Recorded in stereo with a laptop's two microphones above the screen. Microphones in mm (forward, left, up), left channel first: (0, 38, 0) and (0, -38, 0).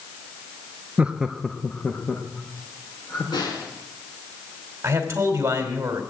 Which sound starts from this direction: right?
A man speaking, at 4.8 s.